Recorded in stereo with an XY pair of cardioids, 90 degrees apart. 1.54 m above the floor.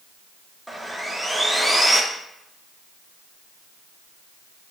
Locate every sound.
0.7 s sawing: 5° right, 0.7 m